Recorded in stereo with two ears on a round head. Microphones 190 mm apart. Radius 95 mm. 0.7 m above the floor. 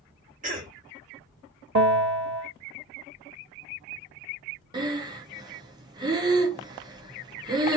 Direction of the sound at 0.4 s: 40° right (ahead or behind).